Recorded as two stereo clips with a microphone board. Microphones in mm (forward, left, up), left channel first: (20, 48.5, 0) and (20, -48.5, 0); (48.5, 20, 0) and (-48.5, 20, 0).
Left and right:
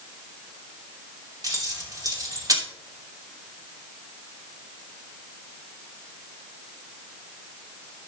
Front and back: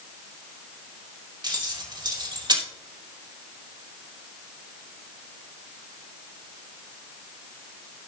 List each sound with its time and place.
1.4 s keys jangling: 140° right, 2.5 m